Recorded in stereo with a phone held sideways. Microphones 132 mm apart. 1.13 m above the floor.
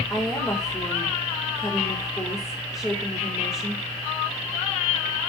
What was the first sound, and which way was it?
A woman speaking, 20° left (ahead or behind).